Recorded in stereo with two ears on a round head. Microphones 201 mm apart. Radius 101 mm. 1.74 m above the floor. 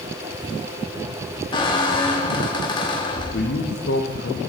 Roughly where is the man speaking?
Left.